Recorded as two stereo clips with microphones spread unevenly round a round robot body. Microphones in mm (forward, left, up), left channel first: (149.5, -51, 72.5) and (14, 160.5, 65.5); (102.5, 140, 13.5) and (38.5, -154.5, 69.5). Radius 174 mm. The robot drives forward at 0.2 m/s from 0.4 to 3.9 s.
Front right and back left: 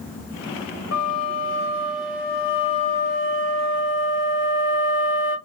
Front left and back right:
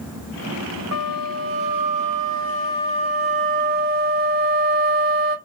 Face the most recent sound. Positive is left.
turn(degrees=-130)